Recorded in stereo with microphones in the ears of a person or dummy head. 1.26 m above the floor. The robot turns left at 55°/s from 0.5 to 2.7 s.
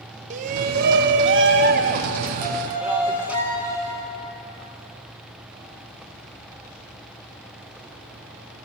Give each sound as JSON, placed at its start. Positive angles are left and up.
{"t": 0.3, "sound": "a shout", "azimuth_deg": -55, "distance_m": 0.9}
{"t": 2.4, "sound": "a violin", "side_deg": -50, "distance_m": 5.5}